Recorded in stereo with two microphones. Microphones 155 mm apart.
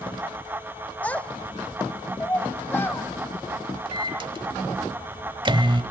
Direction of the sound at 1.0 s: 10° left (ahead or behind).